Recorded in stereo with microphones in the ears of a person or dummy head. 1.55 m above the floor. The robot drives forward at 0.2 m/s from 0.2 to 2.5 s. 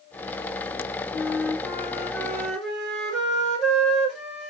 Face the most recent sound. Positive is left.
turn(degrees=0)  # may be behind; listen again after turning